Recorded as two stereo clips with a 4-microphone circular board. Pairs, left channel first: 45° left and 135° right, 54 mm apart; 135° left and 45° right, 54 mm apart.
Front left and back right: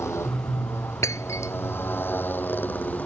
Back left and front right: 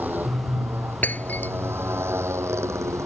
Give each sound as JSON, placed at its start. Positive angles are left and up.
{"t": 0.0, "sound": "a motorcycle", "azimuth_deg": 10}
{"t": 1.0, "sound": "breaking glass", "azimuth_deg": 75}